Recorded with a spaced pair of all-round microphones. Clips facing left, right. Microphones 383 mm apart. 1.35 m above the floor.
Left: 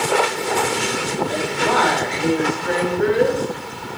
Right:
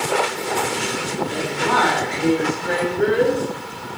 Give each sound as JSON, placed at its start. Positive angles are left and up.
{"t": 1.3, "sound": "a woman speaking", "side_deg": -25, "distance_m": 5.0}